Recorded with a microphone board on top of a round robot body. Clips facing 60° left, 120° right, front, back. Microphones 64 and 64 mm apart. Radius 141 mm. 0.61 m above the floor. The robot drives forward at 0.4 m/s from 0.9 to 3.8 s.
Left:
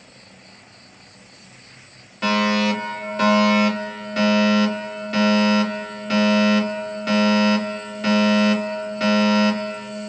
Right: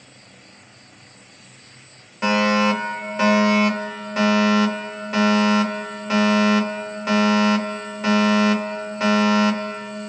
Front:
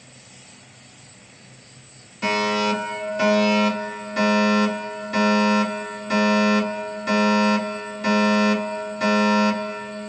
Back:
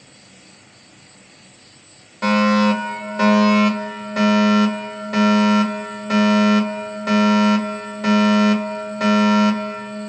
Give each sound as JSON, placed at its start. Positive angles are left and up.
{"t": 0.0, "sound": "an insect", "azimuth_deg": 170, "distance_m": 2.5}
{"t": 2.2, "sound": "a fire alarm", "azimuth_deg": 170, "distance_m": 3.0}